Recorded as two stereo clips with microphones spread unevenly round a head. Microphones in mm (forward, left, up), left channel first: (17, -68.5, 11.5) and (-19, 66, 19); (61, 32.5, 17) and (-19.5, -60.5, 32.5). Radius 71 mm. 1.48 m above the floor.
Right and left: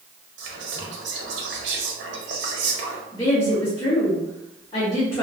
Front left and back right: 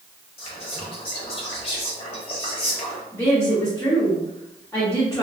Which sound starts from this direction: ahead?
A woman speaking, at 3.1 s.